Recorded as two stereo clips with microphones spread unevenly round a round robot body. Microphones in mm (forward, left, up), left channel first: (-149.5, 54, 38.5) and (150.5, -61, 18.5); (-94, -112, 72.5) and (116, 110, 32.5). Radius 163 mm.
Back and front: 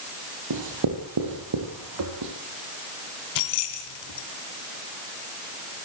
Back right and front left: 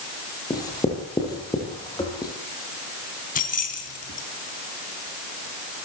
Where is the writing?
55° right, 6 m.